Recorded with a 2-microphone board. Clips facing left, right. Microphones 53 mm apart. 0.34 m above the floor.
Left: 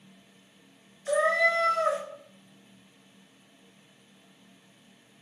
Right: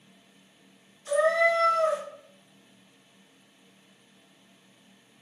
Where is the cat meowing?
40° left (ahead or behind), 1.0 m.